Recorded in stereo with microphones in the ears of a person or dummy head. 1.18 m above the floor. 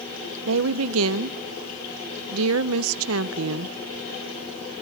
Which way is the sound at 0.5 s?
75° right (ahead or behind).